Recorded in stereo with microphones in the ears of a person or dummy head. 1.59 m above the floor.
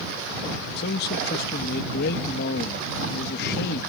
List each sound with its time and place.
0.8 s a man speaking: 70° left (ahead or behind)